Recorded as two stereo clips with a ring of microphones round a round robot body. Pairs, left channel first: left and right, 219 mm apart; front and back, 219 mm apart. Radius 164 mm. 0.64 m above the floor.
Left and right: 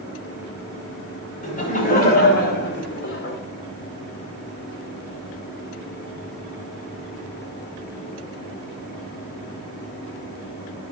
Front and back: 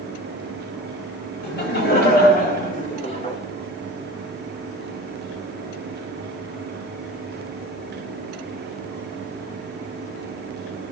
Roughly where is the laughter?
Ahead left.